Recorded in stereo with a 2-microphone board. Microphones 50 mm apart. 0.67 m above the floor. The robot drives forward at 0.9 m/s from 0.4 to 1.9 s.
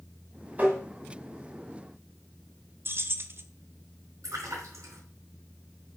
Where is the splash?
80° right, 5 m.